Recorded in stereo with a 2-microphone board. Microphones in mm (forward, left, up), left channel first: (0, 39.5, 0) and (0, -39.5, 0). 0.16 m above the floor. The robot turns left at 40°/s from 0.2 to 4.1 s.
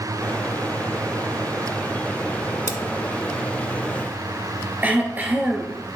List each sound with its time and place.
2.7 s cutlery clinking: 30° right (ahead or behind), 0.7 m
4.8 s throat clearing: 20° right (ahead or behind), 1.4 m